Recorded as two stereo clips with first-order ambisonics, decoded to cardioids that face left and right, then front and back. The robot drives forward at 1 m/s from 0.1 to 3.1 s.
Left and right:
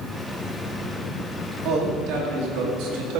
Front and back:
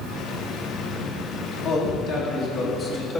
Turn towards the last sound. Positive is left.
turn(degrees=-75)